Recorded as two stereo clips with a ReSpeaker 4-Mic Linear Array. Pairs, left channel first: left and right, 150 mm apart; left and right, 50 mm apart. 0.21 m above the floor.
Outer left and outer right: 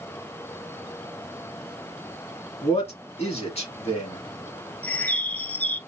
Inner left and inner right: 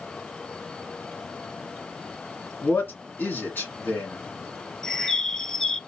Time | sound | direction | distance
2.6 | a man speaking | 45° left (ahead or behind) | 2.0 m
4.8 | a bird | 10° left (ahead or behind) | 0.6 m